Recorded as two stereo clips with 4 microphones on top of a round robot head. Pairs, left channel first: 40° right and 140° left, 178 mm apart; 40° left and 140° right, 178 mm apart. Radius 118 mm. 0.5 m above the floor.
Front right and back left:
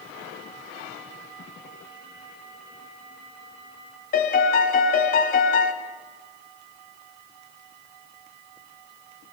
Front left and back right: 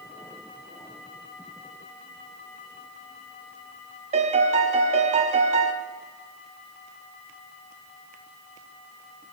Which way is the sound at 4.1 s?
85° right.